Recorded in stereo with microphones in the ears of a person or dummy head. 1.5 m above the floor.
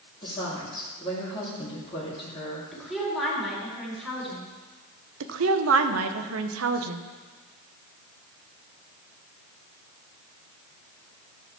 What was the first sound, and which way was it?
A woman speaking, 25° left (ahead or behind).